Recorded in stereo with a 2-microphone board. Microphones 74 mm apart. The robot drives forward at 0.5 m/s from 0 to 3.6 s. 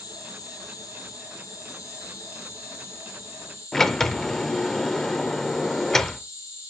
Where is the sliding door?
5° left (ahead or behind), 0.6 m.